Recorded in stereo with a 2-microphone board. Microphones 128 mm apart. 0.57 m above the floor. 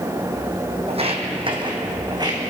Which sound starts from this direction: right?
Footsteps, at 0.9 s.